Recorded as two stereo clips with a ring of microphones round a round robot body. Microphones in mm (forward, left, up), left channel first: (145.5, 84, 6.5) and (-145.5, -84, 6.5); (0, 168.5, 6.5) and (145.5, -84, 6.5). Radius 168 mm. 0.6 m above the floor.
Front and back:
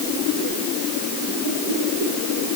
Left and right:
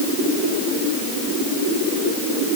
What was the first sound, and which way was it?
Only background noise.